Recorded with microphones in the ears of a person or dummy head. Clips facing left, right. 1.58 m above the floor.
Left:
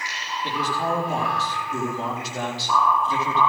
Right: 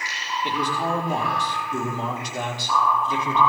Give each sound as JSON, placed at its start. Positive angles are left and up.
{"t": 0.4, "sound": "a man speaking", "side_deg": 5, "distance_m": 3.5}